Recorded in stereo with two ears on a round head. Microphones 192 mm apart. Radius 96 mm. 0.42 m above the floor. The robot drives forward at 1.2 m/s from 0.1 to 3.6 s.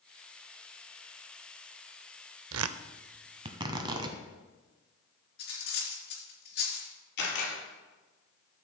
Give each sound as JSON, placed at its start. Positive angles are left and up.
{"t": 2.5, "sound": "tearing paper", "side_deg": -65, "distance_m": 0.5}
{"t": 5.4, "sound": "cutlery clinking", "side_deg": 50, "distance_m": 3.0}
{"t": 7.2, "sound": "a camera shutter", "side_deg": 55, "distance_m": 4.5}